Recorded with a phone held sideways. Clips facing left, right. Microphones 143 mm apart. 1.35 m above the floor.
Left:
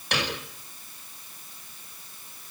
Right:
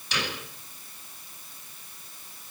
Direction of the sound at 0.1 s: 60° left (ahead or behind).